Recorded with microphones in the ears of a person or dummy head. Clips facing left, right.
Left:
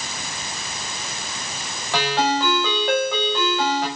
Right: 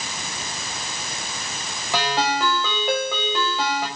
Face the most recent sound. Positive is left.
turn(degrees=-10)  # may be behind; listen again after turning